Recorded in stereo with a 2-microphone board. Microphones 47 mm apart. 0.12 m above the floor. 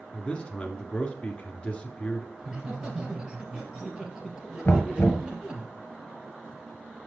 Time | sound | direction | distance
0.1 | a man speaking | 25° left (ahead or behind) | 1.4 m
2.4 | laughter | 15° right (ahead or behind) | 2.5 m
4.7 | knocking | 50° left (ahead or behind) | 1.2 m